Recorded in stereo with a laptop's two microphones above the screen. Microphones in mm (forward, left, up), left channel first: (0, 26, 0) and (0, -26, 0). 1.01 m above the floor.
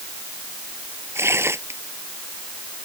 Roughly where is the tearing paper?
Right.